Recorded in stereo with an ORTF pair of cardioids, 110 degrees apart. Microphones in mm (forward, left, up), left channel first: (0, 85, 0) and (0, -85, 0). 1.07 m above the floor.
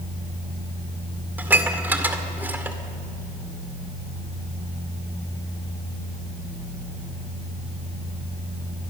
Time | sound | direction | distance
1.4 | dishes clattering | 10° right | 2 m